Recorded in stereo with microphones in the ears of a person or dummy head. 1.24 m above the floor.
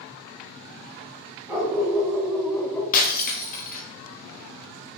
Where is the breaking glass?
50° left (ahead or behind), 1.1 m.